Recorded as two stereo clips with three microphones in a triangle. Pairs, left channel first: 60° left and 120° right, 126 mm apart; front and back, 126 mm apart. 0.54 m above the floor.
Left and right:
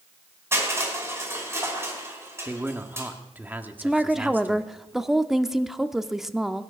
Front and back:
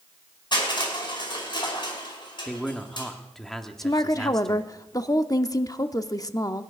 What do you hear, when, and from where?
0.5 s crushing: 50° right, 5 m
2.5 s a man speaking: 80° right, 1.2 m
3.8 s a woman speaking: 35° right, 0.8 m